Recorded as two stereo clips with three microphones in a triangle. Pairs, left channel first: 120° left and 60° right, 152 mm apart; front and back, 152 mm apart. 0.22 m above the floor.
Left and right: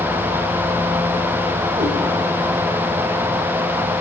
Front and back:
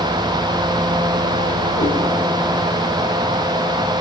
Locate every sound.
1.8 s a cat meowing: 25° right, 1.9 m